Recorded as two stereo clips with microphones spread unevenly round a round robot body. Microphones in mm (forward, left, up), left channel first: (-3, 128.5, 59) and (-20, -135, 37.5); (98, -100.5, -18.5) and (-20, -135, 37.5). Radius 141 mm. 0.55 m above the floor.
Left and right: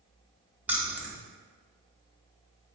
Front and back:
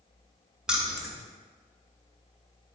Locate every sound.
0.7 s keys jangling: 30° right, 0.5 m